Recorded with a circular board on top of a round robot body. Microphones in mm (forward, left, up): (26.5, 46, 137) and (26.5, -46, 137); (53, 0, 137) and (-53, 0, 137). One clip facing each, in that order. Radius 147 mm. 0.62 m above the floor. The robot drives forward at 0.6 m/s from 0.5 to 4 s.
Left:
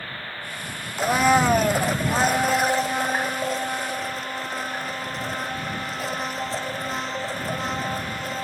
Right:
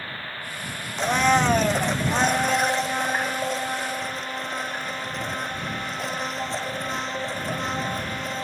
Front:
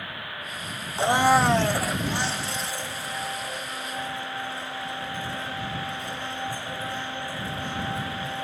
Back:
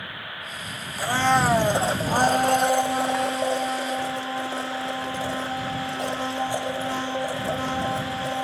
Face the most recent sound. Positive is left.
turn(degrees=180)